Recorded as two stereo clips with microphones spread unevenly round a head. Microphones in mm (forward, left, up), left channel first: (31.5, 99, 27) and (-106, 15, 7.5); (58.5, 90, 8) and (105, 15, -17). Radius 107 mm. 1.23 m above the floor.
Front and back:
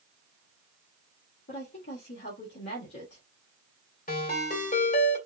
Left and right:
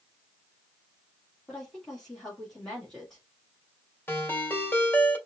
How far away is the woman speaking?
About 2.0 m.